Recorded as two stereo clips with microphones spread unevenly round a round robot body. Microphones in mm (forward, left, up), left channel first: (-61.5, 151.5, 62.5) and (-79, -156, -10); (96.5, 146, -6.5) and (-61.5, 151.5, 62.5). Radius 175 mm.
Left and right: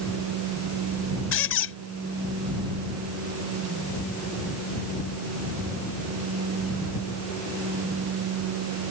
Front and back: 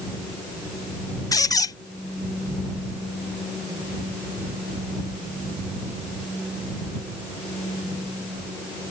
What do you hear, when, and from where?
1.3 s a squeak: 30° left